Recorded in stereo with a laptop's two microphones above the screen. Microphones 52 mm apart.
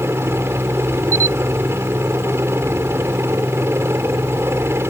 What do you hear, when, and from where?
0.0 s a helicopter: 50° right (ahead or behind)
1.1 s a camera shutter: 65° right (ahead or behind)